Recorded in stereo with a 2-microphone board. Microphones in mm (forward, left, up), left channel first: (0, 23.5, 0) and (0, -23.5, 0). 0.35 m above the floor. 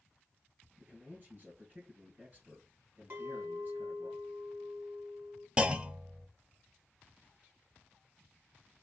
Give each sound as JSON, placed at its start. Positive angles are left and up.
{"t": 0.8, "sound": "a man speaking", "side_deg": -35, "distance_m": 3.0}
{"t": 3.1, "sound": "a clink", "side_deg": -45, "distance_m": 1.8}
{"t": 5.6, "sound": "a clunk", "side_deg": -25, "distance_m": 0.5}